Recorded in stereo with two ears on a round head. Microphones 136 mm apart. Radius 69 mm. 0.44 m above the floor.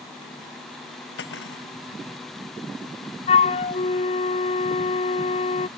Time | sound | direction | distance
1.2 | cutlery clinking | 85° left | ?
3.3 | a flute | 40° left (ahead or behind) | ?